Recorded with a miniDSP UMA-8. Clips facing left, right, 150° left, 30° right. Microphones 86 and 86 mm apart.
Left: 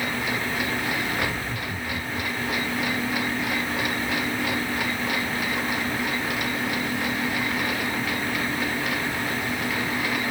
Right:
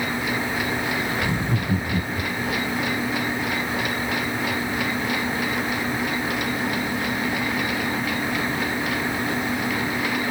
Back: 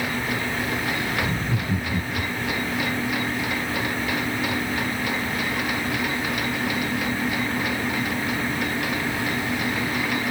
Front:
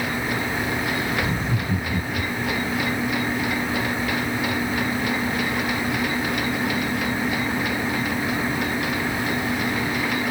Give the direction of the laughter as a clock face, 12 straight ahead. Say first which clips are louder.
Right 4 dB, front 1 dB; 4 o'clock.